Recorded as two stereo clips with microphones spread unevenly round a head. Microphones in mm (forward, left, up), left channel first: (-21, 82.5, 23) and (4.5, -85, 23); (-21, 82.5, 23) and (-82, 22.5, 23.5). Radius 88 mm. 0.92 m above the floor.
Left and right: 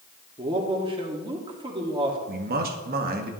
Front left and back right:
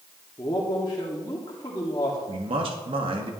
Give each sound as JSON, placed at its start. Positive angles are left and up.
{"t": 0.4, "sound": "a man speaking", "azimuth_deg": -20, "distance_m": 1.7}
{"t": 2.3, "sound": "a man speaking", "azimuth_deg": -115, "distance_m": 1.4}